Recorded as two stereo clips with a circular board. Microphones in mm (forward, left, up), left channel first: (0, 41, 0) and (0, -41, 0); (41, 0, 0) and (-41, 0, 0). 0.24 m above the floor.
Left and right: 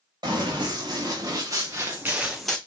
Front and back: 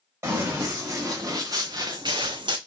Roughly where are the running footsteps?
Behind right.